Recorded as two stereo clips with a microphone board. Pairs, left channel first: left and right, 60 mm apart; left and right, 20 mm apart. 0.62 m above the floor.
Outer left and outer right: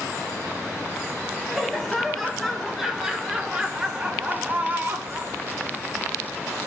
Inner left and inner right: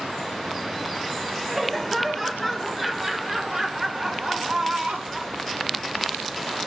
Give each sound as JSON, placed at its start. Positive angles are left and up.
{"t": 1.5, "sound": "laughter", "side_deg": 5, "distance_m": 2.5}